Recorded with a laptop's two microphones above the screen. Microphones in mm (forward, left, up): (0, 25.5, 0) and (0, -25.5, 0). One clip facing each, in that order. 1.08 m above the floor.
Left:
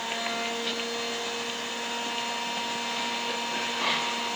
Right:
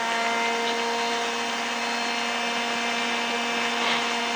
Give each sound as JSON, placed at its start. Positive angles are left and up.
{"t": 0.0, "sound": "a machine running", "side_deg": -65, "distance_m": 1.0}